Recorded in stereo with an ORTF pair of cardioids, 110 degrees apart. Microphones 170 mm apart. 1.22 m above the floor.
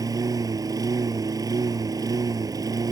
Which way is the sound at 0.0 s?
20° right.